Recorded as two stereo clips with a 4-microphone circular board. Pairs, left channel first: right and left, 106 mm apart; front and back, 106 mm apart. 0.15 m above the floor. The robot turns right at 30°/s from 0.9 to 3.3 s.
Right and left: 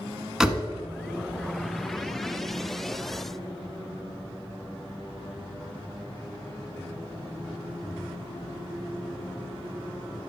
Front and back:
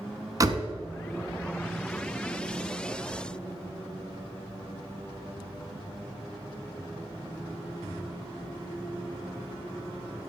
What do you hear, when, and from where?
0.4 s a door slam: 170° left, 0.8 m